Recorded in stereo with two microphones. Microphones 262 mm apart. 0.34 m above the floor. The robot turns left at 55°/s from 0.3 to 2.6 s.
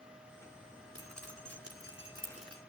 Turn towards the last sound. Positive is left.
turn(degrees=-15)  # may be behind; listen again after turning